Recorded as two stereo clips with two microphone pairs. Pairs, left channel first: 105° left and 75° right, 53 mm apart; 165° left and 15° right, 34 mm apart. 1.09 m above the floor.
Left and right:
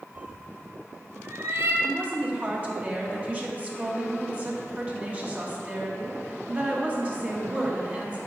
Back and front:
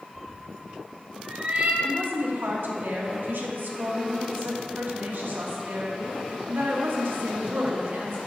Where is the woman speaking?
15° right, 1.4 m.